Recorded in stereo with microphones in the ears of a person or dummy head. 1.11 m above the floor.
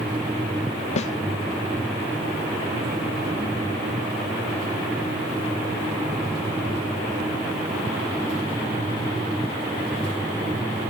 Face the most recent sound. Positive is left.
turn(degrees=45)  # may be behind; listen again after turning